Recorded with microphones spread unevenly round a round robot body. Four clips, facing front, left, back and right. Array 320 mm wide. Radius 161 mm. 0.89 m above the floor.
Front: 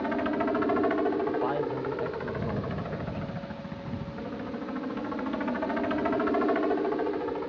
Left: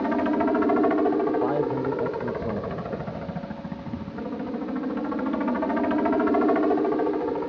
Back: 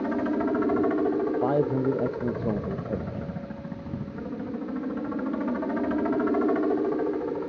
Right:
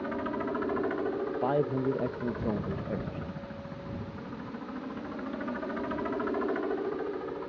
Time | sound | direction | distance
0.0 | a helicopter | 120° left | ?
1.4 | a man speaking | straight behind | ?